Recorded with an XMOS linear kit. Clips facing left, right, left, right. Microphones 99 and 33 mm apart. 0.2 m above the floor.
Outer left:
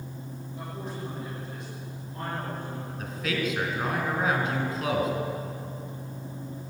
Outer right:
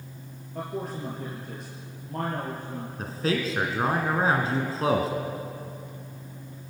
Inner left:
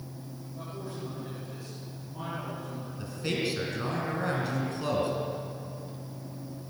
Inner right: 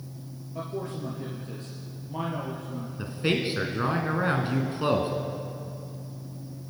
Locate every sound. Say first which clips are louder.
0.6 s a man speaking: outer right 6 dB, inner right 7 dB; 65° right (ahead or behind), 5 m
3.0 s a man speaking: outer right 3 dB, inner right 5 dB; 35° right (ahead or behind), 2 m